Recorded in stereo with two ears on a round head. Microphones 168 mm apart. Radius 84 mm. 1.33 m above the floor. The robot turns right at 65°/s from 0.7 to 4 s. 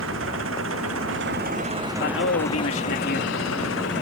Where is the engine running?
100° right; by 4.0 s 115° left.